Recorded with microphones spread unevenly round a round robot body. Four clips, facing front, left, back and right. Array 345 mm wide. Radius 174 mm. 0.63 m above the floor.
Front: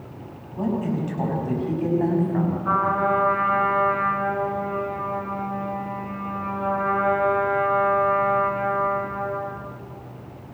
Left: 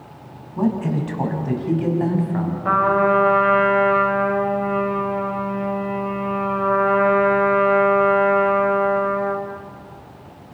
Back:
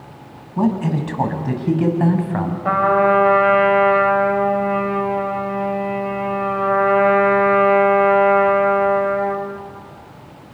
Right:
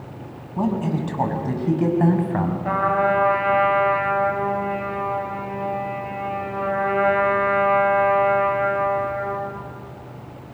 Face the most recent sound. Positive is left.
turn(degrees=165)